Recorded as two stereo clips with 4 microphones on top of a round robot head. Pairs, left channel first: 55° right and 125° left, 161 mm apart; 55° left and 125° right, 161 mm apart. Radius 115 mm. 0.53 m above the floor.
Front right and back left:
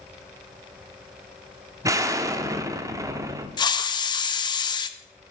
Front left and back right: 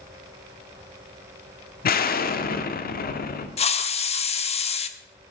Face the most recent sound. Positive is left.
turn(degrees=5)